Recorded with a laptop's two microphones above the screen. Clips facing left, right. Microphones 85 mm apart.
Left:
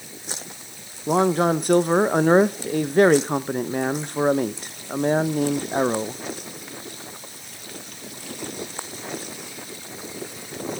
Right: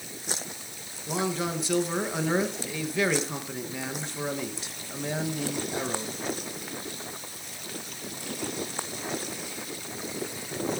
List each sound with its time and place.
1.1 s a man speaking: 50° left (ahead or behind), 0.8 m